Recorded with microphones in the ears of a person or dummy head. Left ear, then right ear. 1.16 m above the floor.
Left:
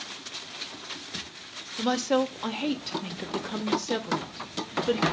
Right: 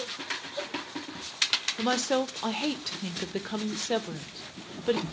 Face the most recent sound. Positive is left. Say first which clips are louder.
# left 7 dB
turn(degrees=-10)  # may be behind; listen again after turning